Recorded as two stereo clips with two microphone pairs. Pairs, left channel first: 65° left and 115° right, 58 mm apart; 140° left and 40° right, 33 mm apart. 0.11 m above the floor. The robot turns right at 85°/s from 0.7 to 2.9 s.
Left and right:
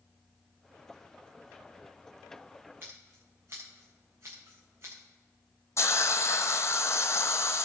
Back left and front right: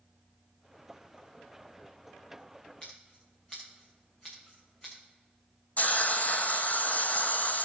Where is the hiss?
100° left, 0.9 m.